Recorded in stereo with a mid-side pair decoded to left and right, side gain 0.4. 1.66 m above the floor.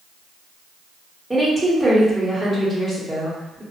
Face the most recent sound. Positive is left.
turn(degrees=-15)